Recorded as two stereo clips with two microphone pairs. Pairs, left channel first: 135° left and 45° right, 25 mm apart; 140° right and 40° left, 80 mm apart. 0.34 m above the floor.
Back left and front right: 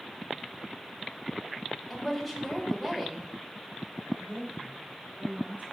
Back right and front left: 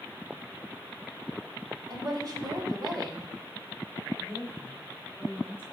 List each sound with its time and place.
1.9 s a woman speaking: 40° left, 2 m
4.2 s a woman speaking: 30° right, 3.5 m